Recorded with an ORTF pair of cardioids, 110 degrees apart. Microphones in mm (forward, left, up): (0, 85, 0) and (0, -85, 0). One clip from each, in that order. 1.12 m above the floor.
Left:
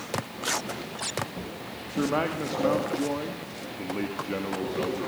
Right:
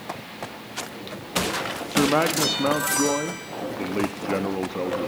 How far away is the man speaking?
About 1.6 m.